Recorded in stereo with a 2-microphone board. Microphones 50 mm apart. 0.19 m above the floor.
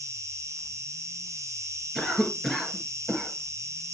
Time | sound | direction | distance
0.0 | an insect | 80° right | 2.5 m
1.9 | a cough | 5° right (ahead or behind) | 2.5 m